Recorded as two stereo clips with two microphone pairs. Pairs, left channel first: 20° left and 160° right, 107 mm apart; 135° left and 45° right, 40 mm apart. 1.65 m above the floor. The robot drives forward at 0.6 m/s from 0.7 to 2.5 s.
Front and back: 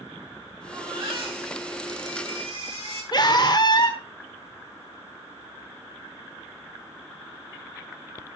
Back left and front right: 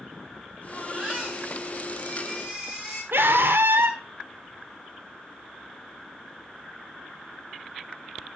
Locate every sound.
0.7 s a baby crying: 125° right, 6.5 m; by 3.0 s 130° right, 7 m
3.1 s a scream: 20° right, 1.4 m